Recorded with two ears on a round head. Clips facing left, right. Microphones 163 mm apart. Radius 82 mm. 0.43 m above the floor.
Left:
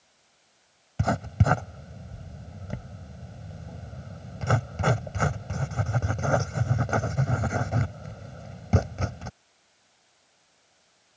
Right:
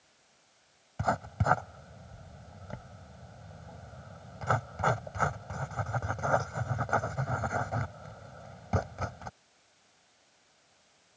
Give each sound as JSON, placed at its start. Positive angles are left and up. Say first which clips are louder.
{"t": 1.0, "sound": "writing", "louder": "left 4 dB", "side_deg": 30}